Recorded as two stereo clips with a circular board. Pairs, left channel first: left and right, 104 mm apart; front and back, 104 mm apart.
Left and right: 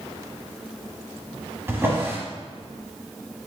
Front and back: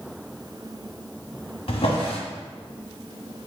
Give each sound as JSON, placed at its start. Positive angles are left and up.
{"t": 1.7, "sound": "a drawer", "azimuth_deg": -25, "distance_m": 1.0}